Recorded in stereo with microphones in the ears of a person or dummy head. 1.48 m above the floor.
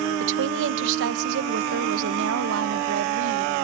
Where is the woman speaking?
70° right (ahead or behind), 1.3 m.